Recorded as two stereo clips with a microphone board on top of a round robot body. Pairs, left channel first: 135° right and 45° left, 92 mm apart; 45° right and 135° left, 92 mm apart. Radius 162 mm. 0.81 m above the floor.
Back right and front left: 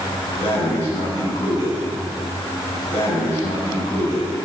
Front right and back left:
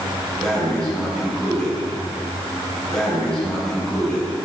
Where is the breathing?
130° right, 10 m.